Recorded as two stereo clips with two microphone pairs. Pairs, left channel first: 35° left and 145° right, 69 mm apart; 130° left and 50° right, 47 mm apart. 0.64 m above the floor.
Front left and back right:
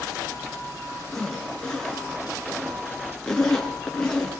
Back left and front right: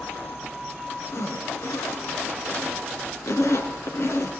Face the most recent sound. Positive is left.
turn(degrees=115)